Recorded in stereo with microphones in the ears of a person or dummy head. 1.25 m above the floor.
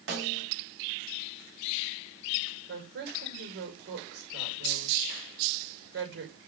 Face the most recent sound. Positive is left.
turn(degrees=-70)  # may be behind; listen again after turning